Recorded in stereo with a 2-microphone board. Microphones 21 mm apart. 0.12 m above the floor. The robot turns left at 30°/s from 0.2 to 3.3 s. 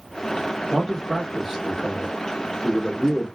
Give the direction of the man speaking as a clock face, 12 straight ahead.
5 o'clock.